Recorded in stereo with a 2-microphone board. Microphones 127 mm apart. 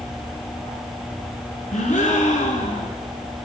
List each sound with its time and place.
1.7 s a gasp: 70° left (ahead or behind), 2.0 m